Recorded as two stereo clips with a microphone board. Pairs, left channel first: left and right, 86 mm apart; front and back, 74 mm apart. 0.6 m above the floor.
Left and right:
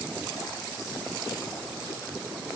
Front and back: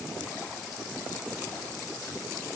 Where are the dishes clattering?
I don't hear dishes clattering.